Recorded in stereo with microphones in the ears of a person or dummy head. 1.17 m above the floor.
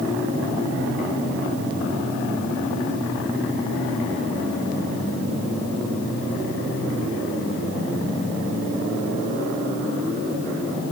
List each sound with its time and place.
Only background noise.